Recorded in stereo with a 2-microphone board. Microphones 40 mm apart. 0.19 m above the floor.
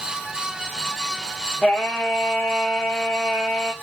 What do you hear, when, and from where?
1.6 s singing: 20° left (ahead or behind), 2.5 m